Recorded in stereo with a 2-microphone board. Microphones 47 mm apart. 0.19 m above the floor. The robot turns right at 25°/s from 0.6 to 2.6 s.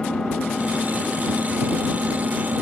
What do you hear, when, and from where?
0.0 s an engine running: 165° left; by 2.6 s 145° right